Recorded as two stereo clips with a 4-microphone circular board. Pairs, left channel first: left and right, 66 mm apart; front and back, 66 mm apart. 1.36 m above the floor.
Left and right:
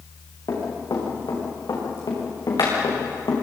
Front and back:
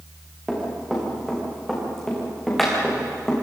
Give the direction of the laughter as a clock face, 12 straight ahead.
No laughter in this recording.